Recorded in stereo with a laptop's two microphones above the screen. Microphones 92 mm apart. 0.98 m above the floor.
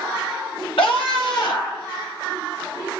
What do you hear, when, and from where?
0.8 s a scream: 70° left (ahead or behind), 1.1 m; by 1.9 s 45° left (ahead or behind), 1.8 m